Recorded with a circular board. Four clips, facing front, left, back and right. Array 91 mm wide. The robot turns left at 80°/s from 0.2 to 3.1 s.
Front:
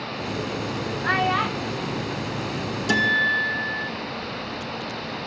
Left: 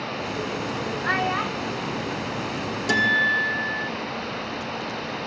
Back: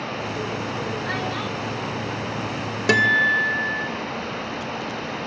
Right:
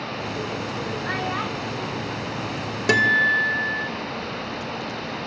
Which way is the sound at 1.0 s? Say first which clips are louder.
Left 5 dB, front 5 dB; 35° left.